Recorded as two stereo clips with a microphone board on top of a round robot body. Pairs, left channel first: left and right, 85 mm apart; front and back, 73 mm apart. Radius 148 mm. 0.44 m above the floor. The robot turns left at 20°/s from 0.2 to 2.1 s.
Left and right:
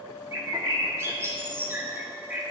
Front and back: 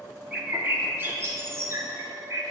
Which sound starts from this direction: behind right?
A bird, at 0.3 s.